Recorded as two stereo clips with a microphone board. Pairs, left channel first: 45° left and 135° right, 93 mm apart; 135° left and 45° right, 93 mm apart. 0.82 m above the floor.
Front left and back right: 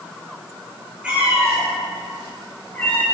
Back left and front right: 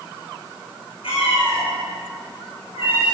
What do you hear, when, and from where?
1.0 s a cat meowing: 150° left, 4 m; by 3.0 s 115° left, 5.5 m